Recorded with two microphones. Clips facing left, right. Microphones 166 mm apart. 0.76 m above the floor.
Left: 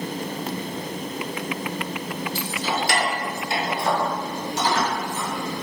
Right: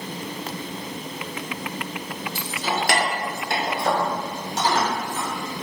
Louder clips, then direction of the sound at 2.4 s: Right 1 dB; 55° right (ahead or behind).